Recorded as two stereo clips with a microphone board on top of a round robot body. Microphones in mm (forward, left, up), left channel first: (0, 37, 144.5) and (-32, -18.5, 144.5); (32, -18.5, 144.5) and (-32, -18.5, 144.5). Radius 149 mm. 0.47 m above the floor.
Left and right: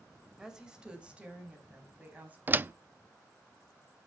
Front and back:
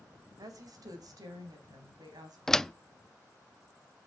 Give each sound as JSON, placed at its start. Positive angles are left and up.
{"t": 0.4, "sound": "a woman speaking", "azimuth_deg": 160, "distance_m": 2.5}
{"t": 2.5, "sound": "a door slam", "azimuth_deg": -80, "distance_m": 0.5}